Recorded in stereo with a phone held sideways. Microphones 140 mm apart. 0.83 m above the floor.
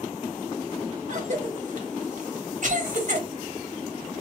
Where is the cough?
55° right (ahead or behind), 1.4 m.